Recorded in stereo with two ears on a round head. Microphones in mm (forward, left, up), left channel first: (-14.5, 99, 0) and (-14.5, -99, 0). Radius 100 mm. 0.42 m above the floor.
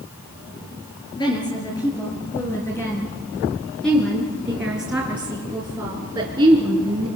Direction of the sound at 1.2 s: 20° left (ahead or behind).